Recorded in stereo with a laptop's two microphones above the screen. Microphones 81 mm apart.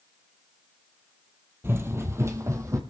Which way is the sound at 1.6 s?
30° right (ahead or behind).